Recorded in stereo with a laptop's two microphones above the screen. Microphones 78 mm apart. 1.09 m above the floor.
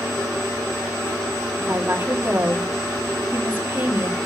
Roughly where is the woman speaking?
Right.